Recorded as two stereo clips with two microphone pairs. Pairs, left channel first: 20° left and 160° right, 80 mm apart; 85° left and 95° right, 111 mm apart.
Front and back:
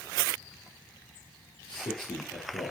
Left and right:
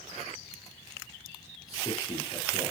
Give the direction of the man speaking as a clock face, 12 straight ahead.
11 o'clock.